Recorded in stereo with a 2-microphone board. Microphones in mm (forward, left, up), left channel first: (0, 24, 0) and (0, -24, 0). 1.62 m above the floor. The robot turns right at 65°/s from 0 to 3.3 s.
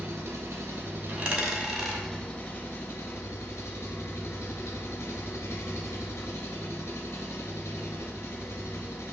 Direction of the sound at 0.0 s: 115° right.